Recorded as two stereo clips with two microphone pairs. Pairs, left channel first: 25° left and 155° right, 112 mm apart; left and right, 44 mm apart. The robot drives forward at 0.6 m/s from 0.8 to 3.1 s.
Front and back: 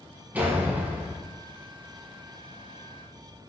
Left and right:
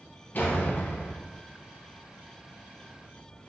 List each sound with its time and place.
0.3 s a door slam: 130° left, 3.5 m; by 1.2 s 135° left, 3.5 m